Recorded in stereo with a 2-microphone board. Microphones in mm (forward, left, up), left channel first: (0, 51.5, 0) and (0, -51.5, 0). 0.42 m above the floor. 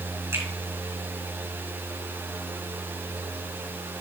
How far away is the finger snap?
About 3 m.